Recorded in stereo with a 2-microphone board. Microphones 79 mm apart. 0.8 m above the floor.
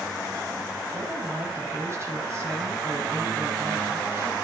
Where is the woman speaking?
35° right (ahead or behind), 5.5 m.